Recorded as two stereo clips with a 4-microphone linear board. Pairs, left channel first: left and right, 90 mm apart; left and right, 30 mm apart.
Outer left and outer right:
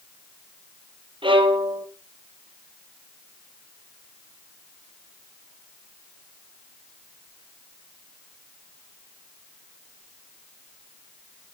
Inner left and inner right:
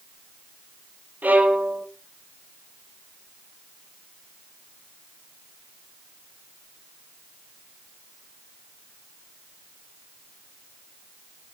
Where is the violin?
65° right (ahead or behind), 2.5 m.